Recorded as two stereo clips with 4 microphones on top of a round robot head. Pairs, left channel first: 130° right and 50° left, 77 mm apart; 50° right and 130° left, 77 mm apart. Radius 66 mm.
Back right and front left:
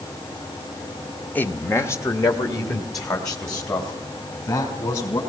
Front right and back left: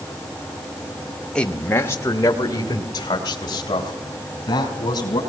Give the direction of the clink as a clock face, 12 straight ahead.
No clink in this recording.